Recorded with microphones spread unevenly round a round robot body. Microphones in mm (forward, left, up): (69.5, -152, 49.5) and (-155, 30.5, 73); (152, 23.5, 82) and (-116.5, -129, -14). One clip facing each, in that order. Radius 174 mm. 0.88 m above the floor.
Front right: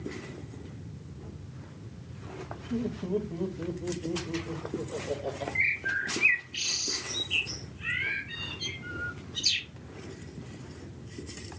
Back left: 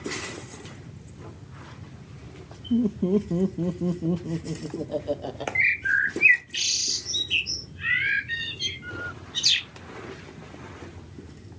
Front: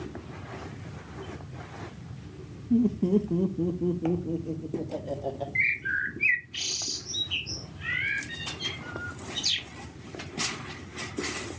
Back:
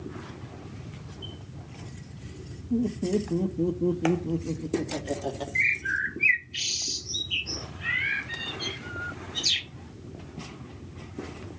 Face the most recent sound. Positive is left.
turn(degrees=165)